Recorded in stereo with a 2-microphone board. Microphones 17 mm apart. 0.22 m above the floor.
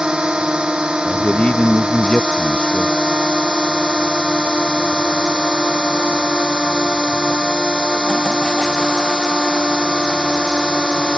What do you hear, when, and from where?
0.0 s a drone: 55° right (ahead or behind)
1.1 s a man speaking: 55° left (ahead or behind)